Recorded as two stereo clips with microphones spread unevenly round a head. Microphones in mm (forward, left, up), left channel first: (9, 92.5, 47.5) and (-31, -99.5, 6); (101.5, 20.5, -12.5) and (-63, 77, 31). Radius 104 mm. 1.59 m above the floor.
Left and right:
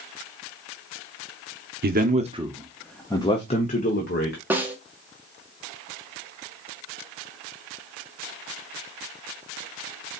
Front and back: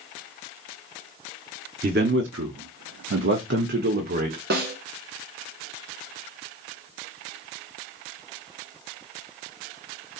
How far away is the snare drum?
About 1.1 m.